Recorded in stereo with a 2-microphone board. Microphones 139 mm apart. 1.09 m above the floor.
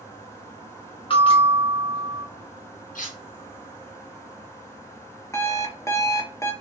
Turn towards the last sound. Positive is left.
turn(degrees=20)  # may be behind; listen again after turning